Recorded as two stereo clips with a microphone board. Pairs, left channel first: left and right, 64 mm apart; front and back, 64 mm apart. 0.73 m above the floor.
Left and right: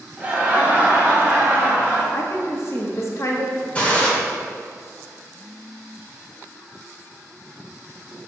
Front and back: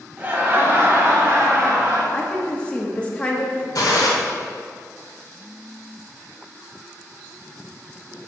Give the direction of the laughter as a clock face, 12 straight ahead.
5 o'clock.